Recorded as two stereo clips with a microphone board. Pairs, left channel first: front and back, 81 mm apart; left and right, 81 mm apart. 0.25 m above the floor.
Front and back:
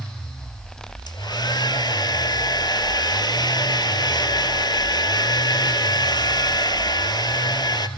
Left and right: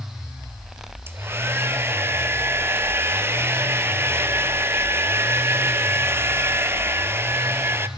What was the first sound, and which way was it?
A hair dryer, 30° right.